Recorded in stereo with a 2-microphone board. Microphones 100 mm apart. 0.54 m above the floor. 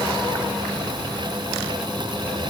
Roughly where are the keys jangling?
No keys jangling in this recording.